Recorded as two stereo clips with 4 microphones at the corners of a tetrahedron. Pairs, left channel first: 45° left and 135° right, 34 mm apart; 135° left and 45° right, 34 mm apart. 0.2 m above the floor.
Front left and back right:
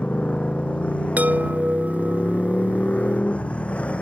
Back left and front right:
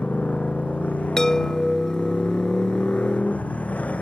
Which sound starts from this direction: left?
A motorcycle, at 0.0 s.